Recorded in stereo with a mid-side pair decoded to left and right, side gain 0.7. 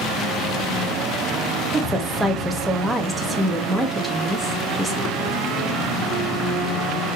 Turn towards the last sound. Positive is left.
turn(degrees=-5)